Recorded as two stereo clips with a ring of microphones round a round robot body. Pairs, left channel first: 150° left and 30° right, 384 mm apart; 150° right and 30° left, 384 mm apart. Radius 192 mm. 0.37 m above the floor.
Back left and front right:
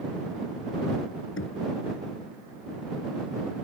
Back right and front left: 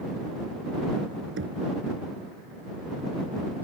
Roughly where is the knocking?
Left.